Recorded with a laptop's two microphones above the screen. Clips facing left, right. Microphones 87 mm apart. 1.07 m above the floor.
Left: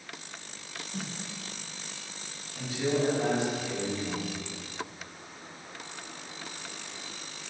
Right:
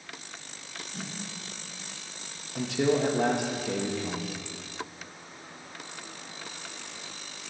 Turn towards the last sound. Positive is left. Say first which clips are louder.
# right 3 dB
turn(degrees=-70)  # may be behind; listen again after turning